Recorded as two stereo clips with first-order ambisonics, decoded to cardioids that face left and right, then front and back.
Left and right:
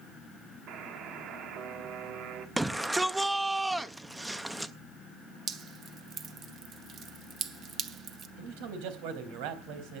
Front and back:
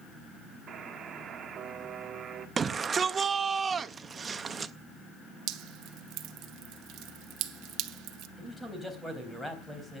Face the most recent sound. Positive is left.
turn(degrees=-85)